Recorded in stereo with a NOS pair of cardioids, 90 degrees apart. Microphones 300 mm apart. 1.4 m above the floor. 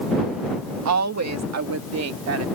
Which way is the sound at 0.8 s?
65° right.